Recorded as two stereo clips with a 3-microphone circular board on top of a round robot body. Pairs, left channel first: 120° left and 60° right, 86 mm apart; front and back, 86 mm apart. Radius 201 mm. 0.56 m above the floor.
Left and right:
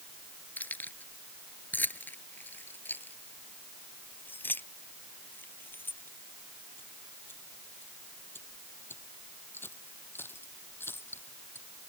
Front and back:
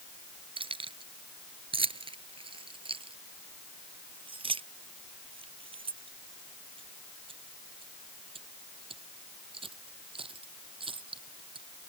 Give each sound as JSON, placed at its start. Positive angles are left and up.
{"t": 0.6, "sound": "keys jangling", "azimuth_deg": -170}